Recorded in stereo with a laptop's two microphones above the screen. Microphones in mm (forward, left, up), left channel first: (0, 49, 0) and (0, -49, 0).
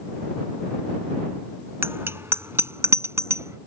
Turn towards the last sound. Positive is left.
turn(degrees=-30)  # may be behind; listen again after turning